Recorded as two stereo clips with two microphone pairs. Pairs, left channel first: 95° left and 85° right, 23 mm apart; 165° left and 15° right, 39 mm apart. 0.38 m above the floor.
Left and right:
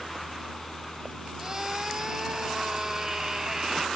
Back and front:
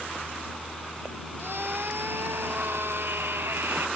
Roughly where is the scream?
Ahead.